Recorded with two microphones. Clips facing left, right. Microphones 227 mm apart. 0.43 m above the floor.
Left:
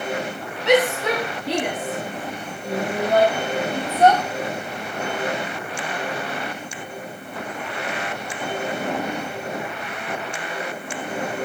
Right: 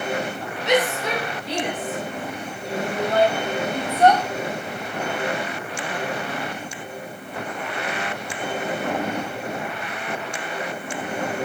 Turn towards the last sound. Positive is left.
turn(degrees=15)  # may be behind; listen again after turning